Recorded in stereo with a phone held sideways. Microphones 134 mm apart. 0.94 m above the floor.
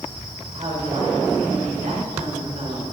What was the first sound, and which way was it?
A woman speaking, 60° right (ahead or behind).